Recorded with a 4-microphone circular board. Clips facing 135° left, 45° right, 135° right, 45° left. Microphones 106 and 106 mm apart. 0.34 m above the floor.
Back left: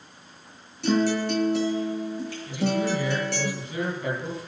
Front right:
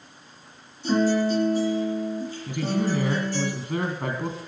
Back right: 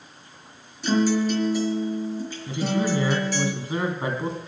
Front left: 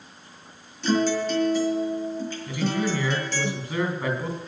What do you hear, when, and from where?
0.8 s a guitar: 145° left, 6.5 m
2.5 s a man speaking: 70° right, 3.5 m